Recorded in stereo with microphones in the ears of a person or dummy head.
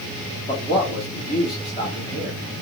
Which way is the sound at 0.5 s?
35° left (ahead or behind).